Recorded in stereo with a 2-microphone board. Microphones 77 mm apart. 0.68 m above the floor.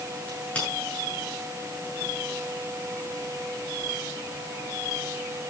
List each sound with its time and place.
0.3 s a crack: 20° left (ahead or behind), 7 m